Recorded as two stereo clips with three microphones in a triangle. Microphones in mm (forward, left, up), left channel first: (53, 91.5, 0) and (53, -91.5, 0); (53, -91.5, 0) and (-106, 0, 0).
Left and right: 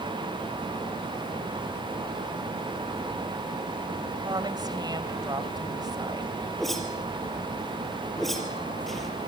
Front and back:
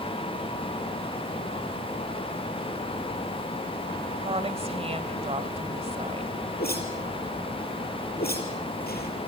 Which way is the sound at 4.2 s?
155° right.